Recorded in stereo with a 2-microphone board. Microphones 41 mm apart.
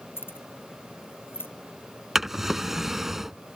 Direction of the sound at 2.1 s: 10° right (ahead or behind).